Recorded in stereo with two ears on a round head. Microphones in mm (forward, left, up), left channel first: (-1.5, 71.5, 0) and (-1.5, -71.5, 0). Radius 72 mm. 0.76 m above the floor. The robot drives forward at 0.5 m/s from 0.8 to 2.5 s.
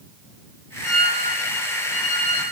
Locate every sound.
0.8 s a violin: 55° left (ahead or behind), 2.5 m; by 2.4 s 45° left (ahead or behind), 3 m